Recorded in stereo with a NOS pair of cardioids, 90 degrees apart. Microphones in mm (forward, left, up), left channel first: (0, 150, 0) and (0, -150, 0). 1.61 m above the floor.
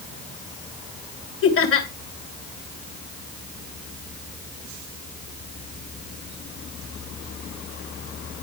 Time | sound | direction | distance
1.4 | laughter | 45° left | 2 m